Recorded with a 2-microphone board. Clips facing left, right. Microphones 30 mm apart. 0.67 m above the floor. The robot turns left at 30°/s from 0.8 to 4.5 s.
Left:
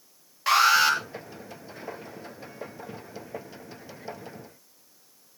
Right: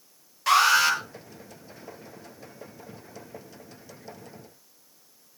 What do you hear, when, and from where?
0.5 s an alarm: 15° left (ahead or behind), 8 m; by 1.0 s 20° left (ahead or behind), 8 m